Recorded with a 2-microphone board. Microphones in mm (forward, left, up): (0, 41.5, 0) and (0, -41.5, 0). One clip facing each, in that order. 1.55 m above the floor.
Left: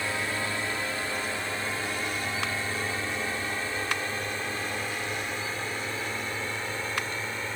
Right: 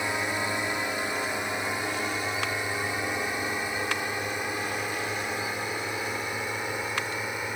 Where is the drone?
20° right (ahead or behind); by 7.6 s 15° right (ahead or behind).